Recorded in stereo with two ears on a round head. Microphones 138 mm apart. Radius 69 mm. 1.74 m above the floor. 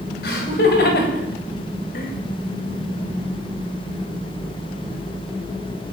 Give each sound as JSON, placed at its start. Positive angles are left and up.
{"t": 0.2, "sound": "laughter", "side_deg": 70, "distance_m": 8.0}